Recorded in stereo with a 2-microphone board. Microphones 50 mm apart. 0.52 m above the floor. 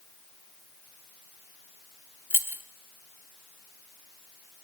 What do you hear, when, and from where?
2.3 s keys jangling: 45° right (ahead or behind), 0.9 m